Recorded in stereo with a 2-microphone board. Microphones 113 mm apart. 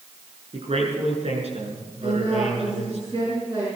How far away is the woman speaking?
About 6 m.